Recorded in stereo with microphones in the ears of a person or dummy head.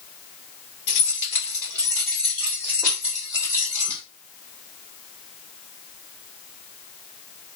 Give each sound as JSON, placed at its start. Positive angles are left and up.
{"t": 0.9, "sound": "keys jangling", "side_deg": 35, "distance_m": 1.2}